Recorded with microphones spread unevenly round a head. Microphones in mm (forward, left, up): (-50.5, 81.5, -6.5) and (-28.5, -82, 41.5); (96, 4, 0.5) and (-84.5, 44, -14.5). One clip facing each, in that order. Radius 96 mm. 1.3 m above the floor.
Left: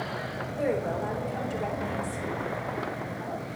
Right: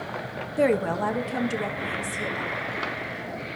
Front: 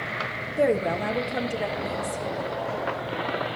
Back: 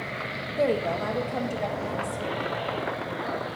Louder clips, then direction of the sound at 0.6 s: Right 6 dB, front 2 dB; 90° right.